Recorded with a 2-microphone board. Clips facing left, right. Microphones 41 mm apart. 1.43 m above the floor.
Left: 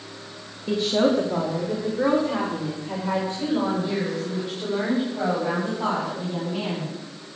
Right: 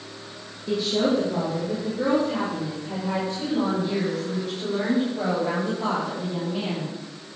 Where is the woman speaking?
20° left (ahead or behind), 1.6 m; by 6.9 s 25° left (ahead or behind), 6.5 m.